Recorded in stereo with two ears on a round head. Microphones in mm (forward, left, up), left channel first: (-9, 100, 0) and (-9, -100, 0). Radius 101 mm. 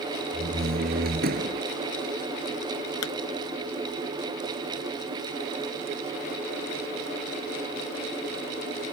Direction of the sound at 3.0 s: 85° left.